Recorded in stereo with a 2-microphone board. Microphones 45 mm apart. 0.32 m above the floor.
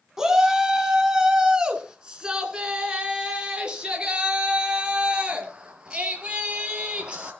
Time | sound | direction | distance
0.2 | a shout | 15° right (ahead or behind) | 2 m